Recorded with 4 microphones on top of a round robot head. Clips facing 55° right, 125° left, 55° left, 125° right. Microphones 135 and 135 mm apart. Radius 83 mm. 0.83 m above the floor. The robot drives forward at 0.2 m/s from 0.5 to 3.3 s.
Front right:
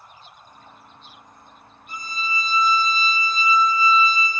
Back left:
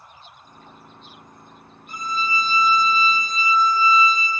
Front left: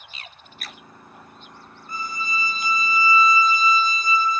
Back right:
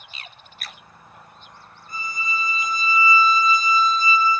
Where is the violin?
90° left, 0.6 m; by 4.3 s 125° left, 0.6 m.